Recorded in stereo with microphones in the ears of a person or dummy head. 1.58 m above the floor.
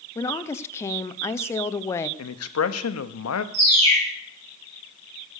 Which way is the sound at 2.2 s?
80° left.